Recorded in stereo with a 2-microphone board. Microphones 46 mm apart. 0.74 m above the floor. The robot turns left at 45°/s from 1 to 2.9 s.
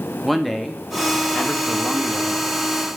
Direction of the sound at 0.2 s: 175° left.